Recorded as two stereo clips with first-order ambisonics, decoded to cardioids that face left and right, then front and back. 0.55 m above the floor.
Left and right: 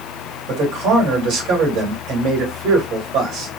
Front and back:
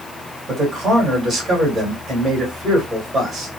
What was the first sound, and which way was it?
A man speaking, 100° right.